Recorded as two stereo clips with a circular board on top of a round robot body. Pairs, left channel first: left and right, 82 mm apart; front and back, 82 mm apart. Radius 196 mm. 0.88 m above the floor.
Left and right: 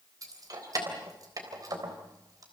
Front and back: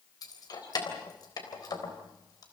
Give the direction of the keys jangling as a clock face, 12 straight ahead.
1 o'clock.